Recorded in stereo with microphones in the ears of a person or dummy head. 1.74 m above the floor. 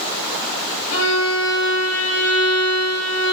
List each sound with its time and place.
0.9 s a violin: 90° left, 3.5 m